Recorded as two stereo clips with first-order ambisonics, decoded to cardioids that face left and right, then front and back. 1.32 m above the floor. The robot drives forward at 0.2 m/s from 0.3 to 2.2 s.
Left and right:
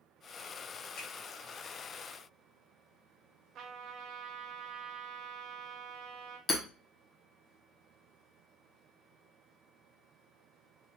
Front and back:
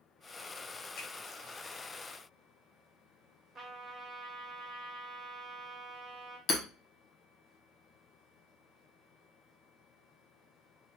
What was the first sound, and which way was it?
A finger snap, 50° left.